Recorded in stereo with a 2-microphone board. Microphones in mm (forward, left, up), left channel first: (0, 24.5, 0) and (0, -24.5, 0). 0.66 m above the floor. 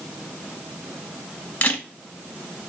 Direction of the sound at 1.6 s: 35° left (ahead or behind).